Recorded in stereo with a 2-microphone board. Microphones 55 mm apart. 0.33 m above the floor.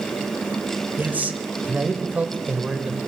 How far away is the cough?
I don't hear a cough.